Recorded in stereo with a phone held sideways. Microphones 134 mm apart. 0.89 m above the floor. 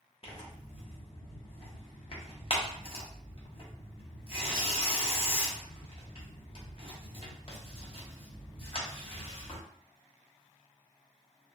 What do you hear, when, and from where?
0.2 s tearing paper: 40° left (ahead or behind), 0.7 m